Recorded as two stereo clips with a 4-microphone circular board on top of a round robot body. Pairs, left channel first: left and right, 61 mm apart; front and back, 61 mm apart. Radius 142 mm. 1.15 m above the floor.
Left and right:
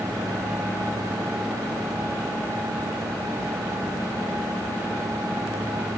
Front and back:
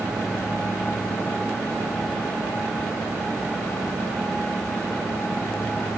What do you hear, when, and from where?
Only background noise.